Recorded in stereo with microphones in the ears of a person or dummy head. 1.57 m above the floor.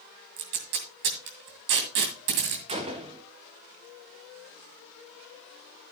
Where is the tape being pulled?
55° right (ahead or behind), 2.5 m.